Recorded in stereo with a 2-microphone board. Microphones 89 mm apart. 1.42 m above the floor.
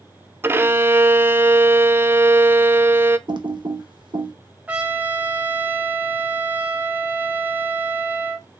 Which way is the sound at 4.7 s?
15° right (ahead or behind).